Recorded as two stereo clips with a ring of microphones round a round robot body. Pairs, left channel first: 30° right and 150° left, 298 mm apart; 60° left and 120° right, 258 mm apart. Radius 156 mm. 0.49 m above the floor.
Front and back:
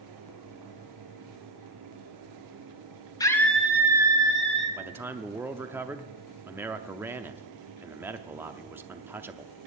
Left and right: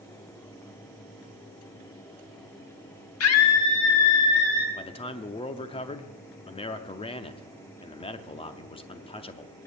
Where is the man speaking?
80° left, 0.7 m.